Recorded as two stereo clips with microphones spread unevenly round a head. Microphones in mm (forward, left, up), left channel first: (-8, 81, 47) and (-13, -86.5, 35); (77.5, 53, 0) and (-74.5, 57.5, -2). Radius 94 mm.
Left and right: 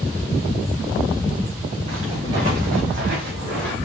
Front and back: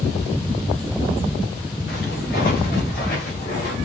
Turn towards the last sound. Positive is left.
turn(degrees=-60)